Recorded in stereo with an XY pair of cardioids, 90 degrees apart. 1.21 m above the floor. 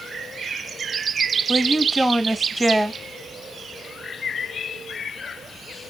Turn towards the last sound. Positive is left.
turn(degrees=-5)